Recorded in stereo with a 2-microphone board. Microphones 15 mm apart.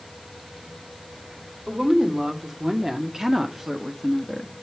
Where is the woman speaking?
65° right (ahead or behind), 2.5 m; by 4.5 s centre (ahead or behind), 1.2 m.